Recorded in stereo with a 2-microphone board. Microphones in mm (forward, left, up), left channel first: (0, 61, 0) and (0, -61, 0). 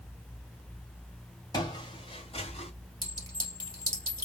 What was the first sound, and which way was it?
Footsteps, 35° left (ahead or behind).